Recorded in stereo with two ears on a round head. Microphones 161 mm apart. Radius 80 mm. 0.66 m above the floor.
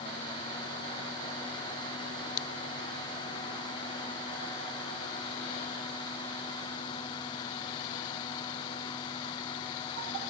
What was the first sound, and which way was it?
Only background noise.